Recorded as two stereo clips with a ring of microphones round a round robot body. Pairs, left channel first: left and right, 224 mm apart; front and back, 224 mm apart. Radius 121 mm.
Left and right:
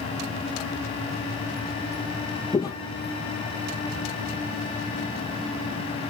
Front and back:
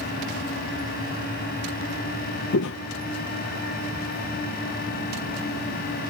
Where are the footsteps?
15° left, 0.7 m.